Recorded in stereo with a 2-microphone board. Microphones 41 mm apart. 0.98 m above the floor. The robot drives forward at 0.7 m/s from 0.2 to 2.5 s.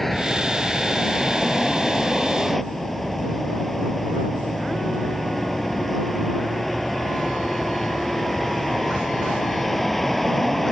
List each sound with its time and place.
0.0 s a vehicle: 5° left (ahead or behind)